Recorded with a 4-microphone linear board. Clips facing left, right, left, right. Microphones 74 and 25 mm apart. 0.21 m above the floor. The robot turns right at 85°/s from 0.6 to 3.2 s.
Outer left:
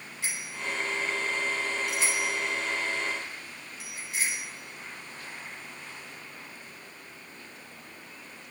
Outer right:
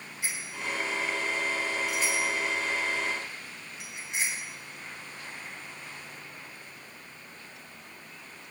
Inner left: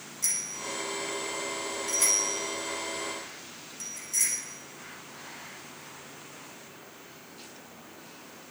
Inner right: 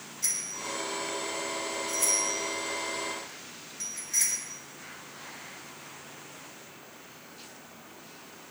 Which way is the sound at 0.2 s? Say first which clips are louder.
Even, inner left 1 dB; 15° right (ahead or behind).